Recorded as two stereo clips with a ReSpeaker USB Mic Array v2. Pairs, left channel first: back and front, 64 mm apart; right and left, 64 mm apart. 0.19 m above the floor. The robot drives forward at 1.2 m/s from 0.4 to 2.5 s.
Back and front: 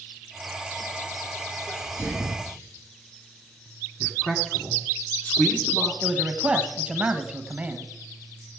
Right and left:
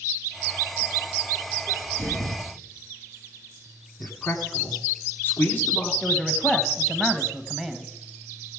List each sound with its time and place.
1.7 s a sneeze: 130° right, 1.7 m; by 2.5 s 150° right, 2.5 m
4.0 s a man speaking: 130° right, 1.6 m
6.0 s a man speaking: 20° right, 1.2 m